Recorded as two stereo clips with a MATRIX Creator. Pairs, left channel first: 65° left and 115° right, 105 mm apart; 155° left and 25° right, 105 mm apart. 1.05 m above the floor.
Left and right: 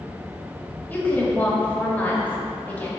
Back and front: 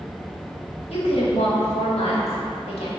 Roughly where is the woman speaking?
Behind left.